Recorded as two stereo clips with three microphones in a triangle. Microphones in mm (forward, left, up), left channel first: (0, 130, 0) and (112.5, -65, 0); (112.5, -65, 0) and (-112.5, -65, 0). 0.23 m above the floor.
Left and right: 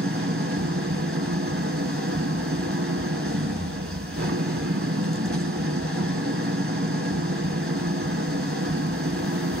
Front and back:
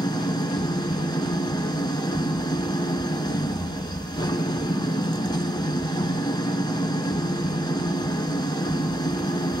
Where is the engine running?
70° right, 0.8 m.